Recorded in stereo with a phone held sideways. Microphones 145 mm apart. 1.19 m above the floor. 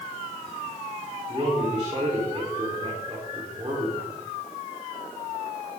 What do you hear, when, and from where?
1.3 s a man speaking: 35° right (ahead or behind), 4 m